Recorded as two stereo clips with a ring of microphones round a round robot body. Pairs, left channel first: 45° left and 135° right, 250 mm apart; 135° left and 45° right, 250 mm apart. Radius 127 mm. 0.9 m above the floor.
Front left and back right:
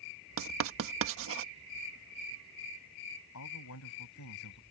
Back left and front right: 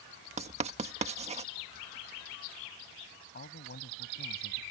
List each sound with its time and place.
0.4 s writing: 110° right
3.3 s a man speaking: 80° left